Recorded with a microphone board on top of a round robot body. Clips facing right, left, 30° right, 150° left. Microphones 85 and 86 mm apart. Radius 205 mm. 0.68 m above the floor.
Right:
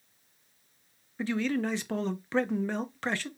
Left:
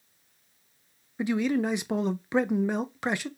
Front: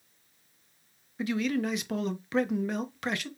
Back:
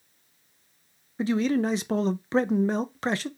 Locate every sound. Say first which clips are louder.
1.2 s a man speaking: left 4 dB, back 5 dB; 150° left, 0.6 m